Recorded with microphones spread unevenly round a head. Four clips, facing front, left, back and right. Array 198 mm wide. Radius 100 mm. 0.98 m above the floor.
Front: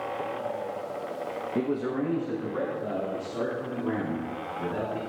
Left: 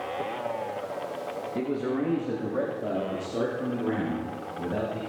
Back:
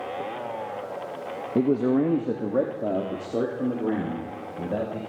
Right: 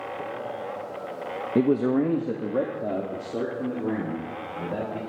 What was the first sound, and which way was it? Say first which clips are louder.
A man speaking: right 8 dB, back 7 dB; 115° right.